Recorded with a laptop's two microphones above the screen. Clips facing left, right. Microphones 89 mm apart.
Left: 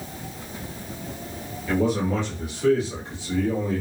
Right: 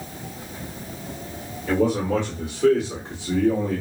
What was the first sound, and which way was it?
A man speaking, 60° right (ahead or behind).